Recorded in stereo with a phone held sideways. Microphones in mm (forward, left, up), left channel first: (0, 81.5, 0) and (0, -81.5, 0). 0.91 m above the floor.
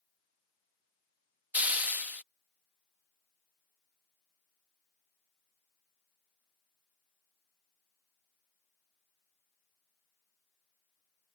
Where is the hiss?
10° right (ahead or behind).